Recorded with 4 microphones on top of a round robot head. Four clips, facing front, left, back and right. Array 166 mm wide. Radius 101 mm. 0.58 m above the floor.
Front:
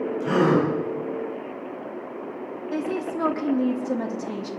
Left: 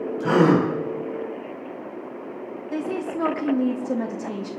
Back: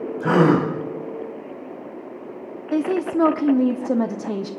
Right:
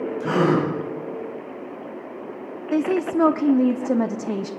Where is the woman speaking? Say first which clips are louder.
Right 7 dB, back 7 dB; 140° right, 0.7 m.